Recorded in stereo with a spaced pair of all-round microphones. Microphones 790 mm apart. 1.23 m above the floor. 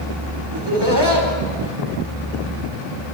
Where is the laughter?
30° right (ahead or behind), 4 m.